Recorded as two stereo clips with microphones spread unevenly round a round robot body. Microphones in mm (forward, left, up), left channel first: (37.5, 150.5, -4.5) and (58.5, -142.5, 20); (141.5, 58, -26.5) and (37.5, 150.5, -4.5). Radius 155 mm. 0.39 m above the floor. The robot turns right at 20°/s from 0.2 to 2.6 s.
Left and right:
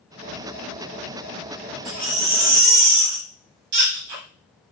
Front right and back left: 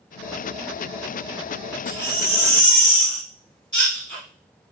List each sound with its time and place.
1.9 s a baby crying: 135° right, 0.8 m; by 4.2 s 120° right, 0.8 m